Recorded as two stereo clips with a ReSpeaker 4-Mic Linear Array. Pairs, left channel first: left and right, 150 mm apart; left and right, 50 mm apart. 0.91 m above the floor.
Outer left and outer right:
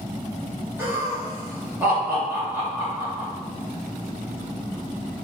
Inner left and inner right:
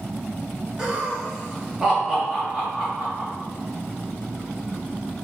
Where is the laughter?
15° right (ahead or behind), 2.0 m.